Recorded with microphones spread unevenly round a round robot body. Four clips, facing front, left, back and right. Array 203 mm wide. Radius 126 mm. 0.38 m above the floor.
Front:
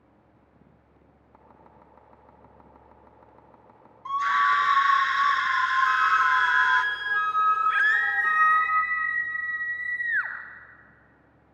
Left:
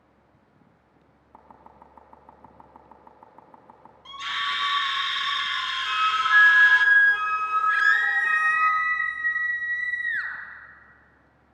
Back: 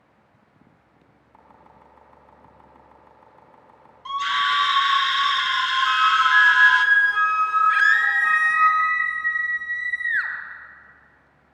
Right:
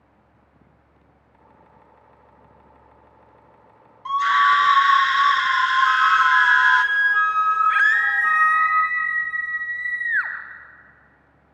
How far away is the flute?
About 1.1 m.